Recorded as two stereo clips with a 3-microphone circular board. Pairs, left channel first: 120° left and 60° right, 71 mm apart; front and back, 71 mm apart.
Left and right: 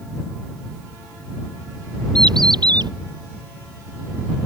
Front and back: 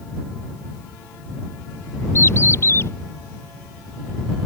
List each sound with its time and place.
2.1 s a bird: 55° right